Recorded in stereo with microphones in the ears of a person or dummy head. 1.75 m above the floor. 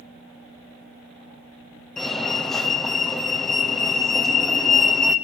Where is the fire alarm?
5° left (ahead or behind), 1.5 m.